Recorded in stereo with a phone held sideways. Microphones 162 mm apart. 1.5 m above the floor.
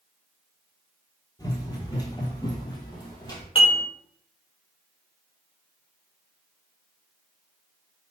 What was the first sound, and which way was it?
Running footsteps, 25° left (ahead or behind).